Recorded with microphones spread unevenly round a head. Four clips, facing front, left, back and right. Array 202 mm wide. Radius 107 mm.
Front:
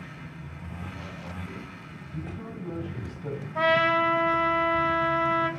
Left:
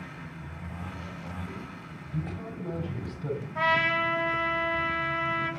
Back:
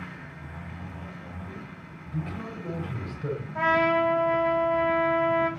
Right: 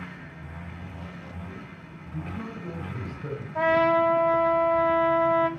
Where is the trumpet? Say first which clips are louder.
Right 7 dB, even; 85° right, 5.5 m.